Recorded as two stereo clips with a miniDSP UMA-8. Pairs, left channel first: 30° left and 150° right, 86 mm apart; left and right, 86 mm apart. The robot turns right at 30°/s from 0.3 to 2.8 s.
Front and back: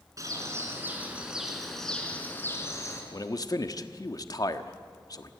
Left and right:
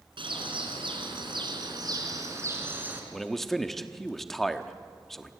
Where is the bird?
100° right, 3.5 m; by 3.0 s 25° right, 3.5 m.